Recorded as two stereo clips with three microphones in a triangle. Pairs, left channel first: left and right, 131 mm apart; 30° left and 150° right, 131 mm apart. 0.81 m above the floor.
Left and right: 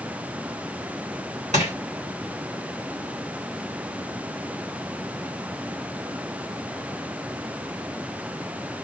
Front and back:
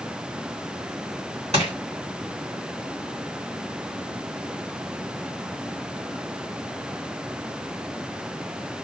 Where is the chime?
I don't hear a chime.